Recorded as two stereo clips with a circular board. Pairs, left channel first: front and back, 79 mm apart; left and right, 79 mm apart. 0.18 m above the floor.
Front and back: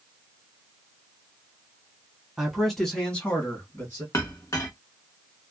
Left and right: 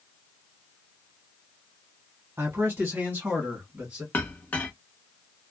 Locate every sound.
2.4 s a man speaking: 100° right, 1.4 m; by 4.0 s 25° right, 1.6 m
4.1 s a clink: 30° left, 0.9 m